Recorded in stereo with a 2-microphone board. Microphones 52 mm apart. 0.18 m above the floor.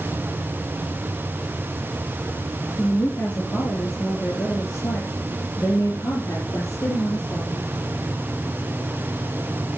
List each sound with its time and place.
2.8 s a woman speaking: 45° left (ahead or behind), 4.5 m; by 7.7 s 75° left (ahead or behind), 5.5 m